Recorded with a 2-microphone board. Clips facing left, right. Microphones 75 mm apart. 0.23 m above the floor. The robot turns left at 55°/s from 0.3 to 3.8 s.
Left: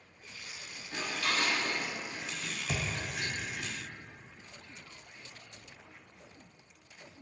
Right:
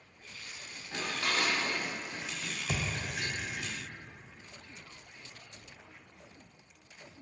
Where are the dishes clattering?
20° right (ahead or behind), 0.8 m; by 3.7 s 10° left (ahead or behind), 0.8 m.